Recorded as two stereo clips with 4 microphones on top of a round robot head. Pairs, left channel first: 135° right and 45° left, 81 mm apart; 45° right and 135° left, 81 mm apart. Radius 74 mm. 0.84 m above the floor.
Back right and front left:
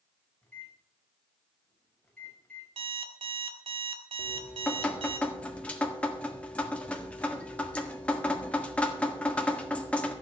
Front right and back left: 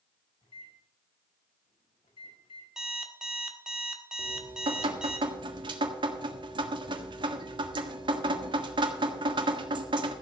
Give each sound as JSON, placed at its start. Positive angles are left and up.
{"t": 0.4, "sound": "a microwave", "azimuth_deg": -55, "distance_m": 4.5}
{"t": 2.8, "sound": "an alarm clock", "azimuth_deg": 50, "distance_m": 1.5}
{"t": 4.2, "sound": "dripping", "azimuth_deg": 155, "distance_m": 1.6}